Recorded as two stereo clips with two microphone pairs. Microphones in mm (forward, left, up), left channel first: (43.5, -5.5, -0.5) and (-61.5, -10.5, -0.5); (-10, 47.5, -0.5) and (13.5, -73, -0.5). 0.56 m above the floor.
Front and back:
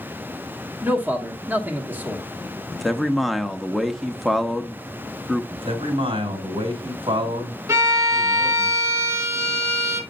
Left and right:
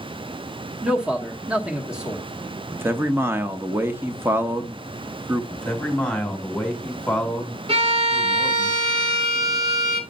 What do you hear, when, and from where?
0.8 s a man speaking: 145° right, 1.2 m
2.7 s a man speaking: 85° right, 0.7 m
5.5 s a man speaking: straight behind, 2.5 m
7.7 s a violin: 115° right, 1.5 m